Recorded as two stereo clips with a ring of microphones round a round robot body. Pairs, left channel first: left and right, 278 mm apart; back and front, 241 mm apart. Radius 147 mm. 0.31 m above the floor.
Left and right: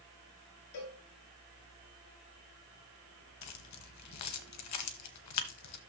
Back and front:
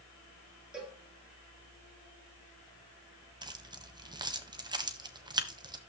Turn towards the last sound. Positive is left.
turn(degrees=70)